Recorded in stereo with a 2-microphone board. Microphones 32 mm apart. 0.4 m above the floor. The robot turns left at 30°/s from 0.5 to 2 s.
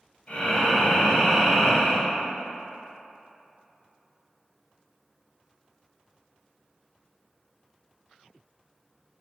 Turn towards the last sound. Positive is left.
turn(degrees=-5)